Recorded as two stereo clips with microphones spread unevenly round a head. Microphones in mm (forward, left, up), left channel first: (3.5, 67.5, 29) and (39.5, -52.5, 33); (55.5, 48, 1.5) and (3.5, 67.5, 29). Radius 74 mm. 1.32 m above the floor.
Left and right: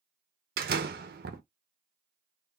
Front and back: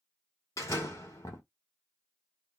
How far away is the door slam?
About 0.8 m.